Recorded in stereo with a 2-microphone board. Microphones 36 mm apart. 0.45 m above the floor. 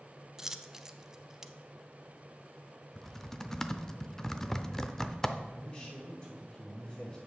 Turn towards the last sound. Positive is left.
turn(degrees=25)  # may be behind; listen again after turning